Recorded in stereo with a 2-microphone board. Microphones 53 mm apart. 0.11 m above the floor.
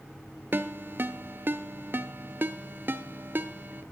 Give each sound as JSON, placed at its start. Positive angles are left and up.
{"t": 0.5, "sound": "a ringtone", "side_deg": -45, "distance_m": 0.7}